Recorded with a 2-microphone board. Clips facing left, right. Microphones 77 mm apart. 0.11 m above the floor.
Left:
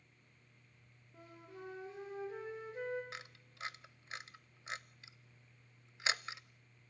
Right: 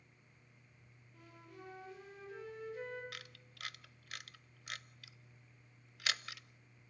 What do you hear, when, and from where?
1.1 s a flute: 30° left (ahead or behind), 8 m
3.1 s a camera shutter: 25° left (ahead or behind), 0.5 m